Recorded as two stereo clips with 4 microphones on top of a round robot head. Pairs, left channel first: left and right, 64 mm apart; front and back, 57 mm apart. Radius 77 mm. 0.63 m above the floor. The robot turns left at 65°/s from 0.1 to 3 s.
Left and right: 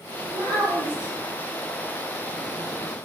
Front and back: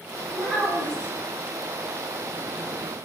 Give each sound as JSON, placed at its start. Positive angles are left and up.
{"t": 0.3, "sound": "a child speaking", "azimuth_deg": -100, "distance_m": 1.1}